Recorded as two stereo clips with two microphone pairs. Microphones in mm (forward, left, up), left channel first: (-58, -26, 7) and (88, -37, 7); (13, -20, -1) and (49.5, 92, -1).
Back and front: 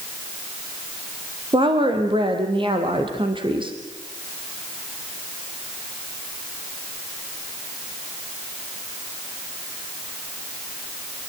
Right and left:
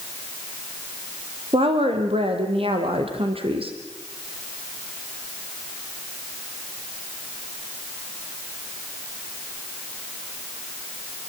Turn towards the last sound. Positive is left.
turn(degrees=45)